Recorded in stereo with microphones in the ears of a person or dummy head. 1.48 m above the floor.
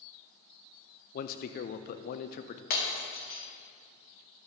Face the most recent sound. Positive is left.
turn(degrees=55)  # may be behind; listen again after turning